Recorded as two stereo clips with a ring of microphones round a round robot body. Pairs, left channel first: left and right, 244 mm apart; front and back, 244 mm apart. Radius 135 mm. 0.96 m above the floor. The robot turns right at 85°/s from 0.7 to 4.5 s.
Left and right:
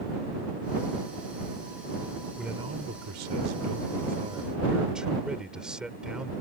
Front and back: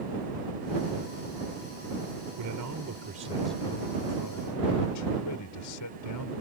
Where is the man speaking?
175° left; by 6.3 s 5° right.